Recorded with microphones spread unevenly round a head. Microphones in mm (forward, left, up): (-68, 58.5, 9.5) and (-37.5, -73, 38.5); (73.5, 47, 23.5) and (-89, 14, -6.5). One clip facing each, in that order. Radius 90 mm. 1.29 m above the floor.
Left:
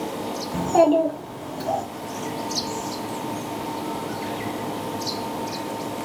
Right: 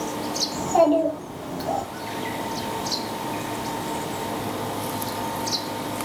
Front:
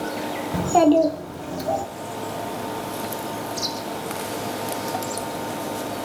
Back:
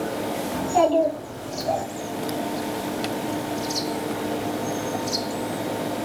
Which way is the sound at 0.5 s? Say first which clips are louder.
Left 1 dB, front 4 dB; 50° left.